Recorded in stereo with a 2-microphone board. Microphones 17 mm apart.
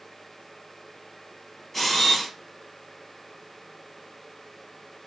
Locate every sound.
1.7 s a camera shutter: 5° left (ahead or behind), 1.2 m